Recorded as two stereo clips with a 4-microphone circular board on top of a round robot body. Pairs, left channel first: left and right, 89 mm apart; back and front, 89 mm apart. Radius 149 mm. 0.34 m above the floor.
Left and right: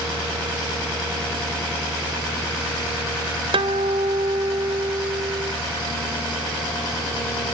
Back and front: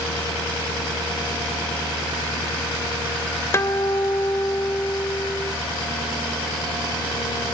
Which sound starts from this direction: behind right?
A guitar, at 3.5 s.